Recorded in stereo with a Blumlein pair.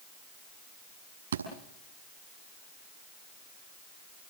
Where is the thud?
65° right, 7 m.